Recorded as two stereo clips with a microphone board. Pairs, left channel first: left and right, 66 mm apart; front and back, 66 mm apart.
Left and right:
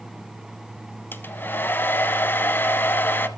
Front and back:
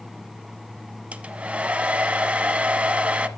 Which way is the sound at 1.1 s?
120° left.